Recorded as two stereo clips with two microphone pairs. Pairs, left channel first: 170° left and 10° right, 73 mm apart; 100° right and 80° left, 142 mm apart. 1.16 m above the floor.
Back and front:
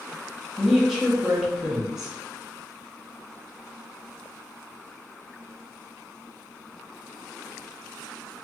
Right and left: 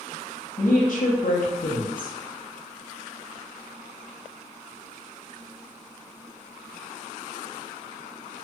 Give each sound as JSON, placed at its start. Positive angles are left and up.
{"t": 0.6, "sound": "a woman speaking", "azimuth_deg": -95, "distance_m": 0.8}